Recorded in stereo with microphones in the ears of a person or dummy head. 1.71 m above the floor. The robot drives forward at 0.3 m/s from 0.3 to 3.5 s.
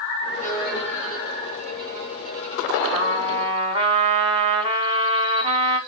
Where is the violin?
65° right (ahead or behind), 2.5 m; by 2.8 s 80° right, 2.5 m.